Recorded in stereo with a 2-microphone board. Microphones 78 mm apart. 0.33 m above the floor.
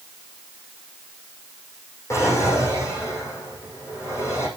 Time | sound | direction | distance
2.1 | a drawer | 40° left (ahead or behind) | 6 m